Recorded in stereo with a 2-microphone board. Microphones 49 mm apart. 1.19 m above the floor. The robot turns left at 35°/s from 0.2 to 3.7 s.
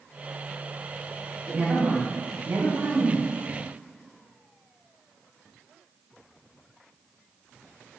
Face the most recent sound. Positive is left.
turn(degrees=-100)